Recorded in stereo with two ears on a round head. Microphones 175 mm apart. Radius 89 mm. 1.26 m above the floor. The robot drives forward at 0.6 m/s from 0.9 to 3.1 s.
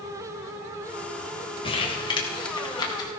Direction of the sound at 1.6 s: 30° left (ahead or behind).